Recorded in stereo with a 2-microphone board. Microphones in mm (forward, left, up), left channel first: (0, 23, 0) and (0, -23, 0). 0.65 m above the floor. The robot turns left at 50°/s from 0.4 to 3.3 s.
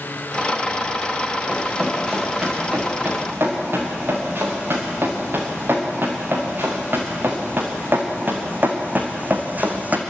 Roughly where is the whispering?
No whispering in this recording.